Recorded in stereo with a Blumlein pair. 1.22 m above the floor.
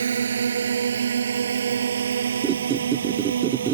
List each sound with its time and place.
0.0 s a drone: 70° right; by 3.7 s 65° right
2.4 s a squeak: 25° right